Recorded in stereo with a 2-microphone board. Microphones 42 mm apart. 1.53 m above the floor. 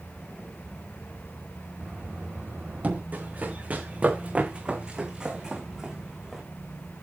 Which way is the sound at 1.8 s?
35° right (ahead or behind).